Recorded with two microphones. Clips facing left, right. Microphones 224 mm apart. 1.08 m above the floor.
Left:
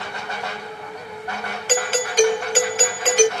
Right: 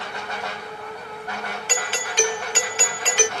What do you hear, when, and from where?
1.7 s a doorbell: 40° left (ahead or behind)